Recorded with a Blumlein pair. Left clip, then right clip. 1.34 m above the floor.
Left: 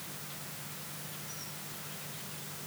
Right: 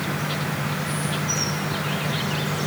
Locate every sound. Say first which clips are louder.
0.0 s an insect: right 19 dB; 50° right